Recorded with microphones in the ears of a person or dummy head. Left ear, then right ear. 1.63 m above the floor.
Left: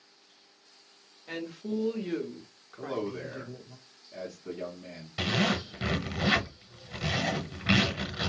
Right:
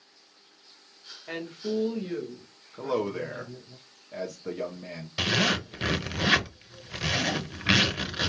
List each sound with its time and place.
1.3 s a woman speaking: 15° right (ahead or behind), 0.9 m; by 3.8 s 60° left (ahead or behind), 1.4 m
2.8 s a man speaking: 40° right (ahead or behind), 0.7 m
5.2 s a zipper: 15° right (ahead or behind), 0.7 m